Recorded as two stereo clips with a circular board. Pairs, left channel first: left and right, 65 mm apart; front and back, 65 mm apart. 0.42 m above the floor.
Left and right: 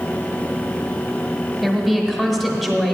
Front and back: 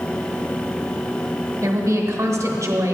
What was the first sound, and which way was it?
A woman speaking, 175° right.